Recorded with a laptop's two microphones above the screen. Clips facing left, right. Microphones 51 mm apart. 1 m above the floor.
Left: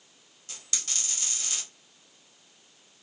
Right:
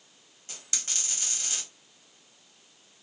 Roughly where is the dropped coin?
Right.